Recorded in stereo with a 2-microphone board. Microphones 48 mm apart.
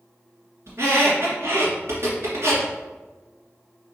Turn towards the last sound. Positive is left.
turn(degrees=-65)  # may be behind; listen again after turning